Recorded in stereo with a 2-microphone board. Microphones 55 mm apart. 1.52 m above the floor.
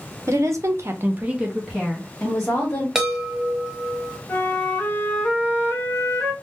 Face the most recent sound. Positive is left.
turn(degrees=35)  # may be behind; listen again after turning